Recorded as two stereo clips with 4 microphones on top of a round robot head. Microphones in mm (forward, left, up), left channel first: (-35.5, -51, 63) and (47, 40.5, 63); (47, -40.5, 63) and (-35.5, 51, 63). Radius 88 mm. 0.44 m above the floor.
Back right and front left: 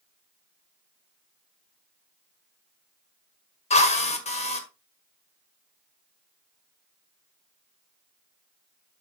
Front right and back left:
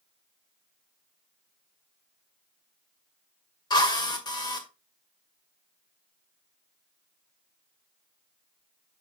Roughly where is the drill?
Right.